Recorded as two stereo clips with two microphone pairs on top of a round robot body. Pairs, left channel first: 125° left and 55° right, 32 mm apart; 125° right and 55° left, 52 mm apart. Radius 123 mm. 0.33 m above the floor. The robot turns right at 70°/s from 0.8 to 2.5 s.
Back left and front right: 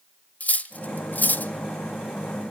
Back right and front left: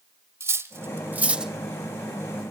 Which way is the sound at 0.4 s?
95° left.